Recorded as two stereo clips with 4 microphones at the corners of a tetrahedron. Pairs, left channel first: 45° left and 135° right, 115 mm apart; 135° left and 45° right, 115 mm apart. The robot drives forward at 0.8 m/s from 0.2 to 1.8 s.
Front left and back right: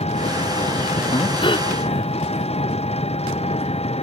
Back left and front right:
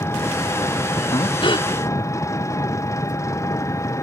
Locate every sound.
0.0 s an engine running: 65° left; by 4.0 s 70° left
1.1 s breathing: 85° left; by 1.7 s 90° left